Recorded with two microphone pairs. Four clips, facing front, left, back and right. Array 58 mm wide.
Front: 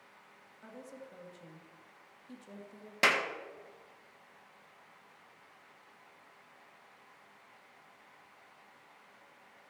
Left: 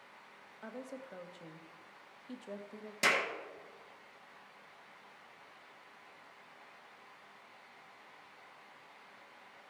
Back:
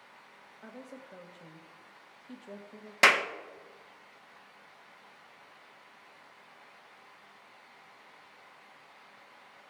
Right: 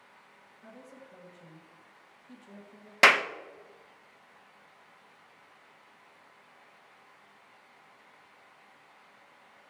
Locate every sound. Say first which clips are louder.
0.6 s a woman speaking: left 5 dB, back 2 dB; 105° left, 1.3 m
3.0 s a clap: right 10 dB, back 5 dB; 115° right, 0.7 m